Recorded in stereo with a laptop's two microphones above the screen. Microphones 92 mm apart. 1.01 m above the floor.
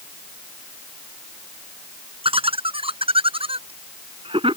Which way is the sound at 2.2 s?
90° right.